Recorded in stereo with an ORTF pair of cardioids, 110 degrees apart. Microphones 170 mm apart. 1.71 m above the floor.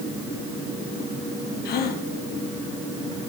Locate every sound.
1.6 s a gasp: 65° left, 2 m